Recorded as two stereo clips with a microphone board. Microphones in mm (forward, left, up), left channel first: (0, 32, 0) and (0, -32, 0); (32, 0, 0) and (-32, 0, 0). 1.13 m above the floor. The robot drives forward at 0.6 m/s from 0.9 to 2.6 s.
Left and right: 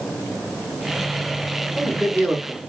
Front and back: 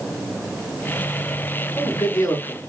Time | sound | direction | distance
1.6 | a man speaking | 35° right | 3.5 m